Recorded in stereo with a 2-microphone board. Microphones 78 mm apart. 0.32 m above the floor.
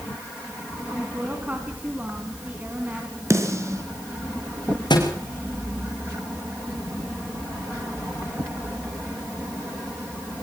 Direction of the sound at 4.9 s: 75° left (ahead or behind).